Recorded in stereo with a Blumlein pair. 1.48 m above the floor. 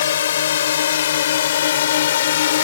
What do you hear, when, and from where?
0.0 s a drone: 65° left; by 2.6 s 60° left